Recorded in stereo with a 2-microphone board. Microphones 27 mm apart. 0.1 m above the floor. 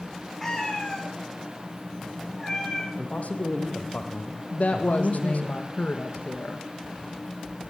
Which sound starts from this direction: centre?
A cat meowing, at 0.4 s.